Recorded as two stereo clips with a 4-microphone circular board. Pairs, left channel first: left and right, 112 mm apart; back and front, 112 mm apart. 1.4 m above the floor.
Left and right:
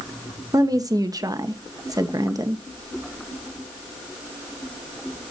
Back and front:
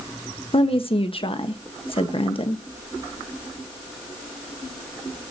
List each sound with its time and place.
0.5 s a woman speaking: 145° right, 1.1 m